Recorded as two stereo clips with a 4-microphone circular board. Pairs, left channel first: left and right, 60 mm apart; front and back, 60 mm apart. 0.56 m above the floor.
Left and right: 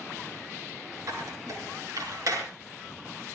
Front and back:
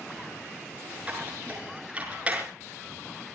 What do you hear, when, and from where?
1.1 s a squeak: 110° right, 6.5 m